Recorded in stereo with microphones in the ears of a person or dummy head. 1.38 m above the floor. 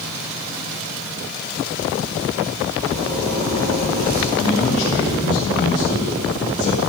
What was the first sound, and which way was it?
A zipper, 80° right.